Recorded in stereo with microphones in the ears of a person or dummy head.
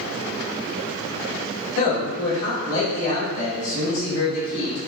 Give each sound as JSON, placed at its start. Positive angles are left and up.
{"t": 1.8, "sound": "a man speaking", "side_deg": 80, "distance_m": 1.9}